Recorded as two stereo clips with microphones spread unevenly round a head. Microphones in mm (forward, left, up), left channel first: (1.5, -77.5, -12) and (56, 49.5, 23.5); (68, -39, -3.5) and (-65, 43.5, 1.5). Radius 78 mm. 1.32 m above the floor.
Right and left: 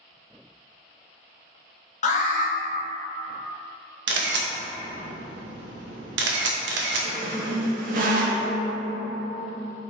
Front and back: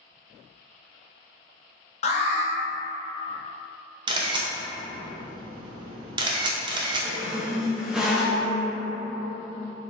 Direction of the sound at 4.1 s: 85° left.